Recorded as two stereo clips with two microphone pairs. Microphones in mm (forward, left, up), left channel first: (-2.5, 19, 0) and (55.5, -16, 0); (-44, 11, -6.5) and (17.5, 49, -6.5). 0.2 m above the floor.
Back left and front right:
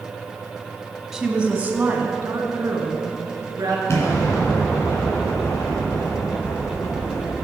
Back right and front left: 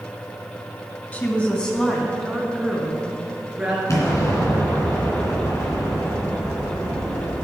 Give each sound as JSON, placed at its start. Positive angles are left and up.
{"t": 1.1, "sound": "a woman speaking", "azimuth_deg": -105, "distance_m": 1.1}
{"t": 3.9, "sound": "an explosion", "azimuth_deg": 180, "distance_m": 2.5}